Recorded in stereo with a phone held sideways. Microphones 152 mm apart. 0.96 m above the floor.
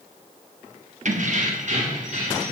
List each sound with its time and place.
1.1 s keys jangling: 55° right (ahead or behind), 0.9 m; by 2.5 s 50° right (ahead or behind), 2.5 m